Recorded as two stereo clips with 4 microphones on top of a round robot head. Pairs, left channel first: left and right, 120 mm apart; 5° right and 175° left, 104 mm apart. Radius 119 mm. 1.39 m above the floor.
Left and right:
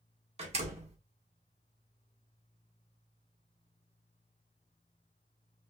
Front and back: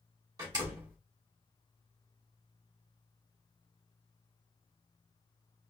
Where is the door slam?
125° right, 1.3 m.